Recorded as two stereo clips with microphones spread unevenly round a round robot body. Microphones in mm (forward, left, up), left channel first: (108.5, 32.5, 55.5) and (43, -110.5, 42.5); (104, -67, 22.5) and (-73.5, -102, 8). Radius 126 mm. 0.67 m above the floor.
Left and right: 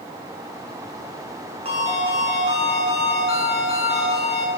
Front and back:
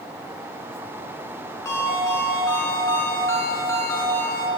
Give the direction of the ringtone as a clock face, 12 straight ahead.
2 o'clock.